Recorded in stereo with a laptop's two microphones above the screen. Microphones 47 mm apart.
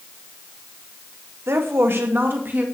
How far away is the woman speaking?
About 1.7 m.